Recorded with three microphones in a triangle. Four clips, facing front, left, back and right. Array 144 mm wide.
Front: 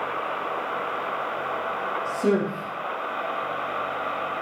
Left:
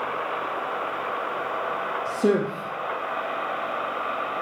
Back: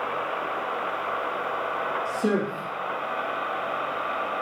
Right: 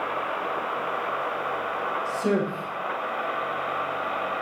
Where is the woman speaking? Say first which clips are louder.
Left 4 dB, front 4 dB; 90° left, 4 m.